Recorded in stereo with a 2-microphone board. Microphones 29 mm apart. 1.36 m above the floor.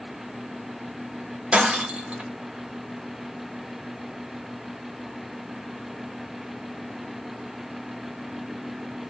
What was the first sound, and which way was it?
Breaking glass, 40° right (ahead or behind).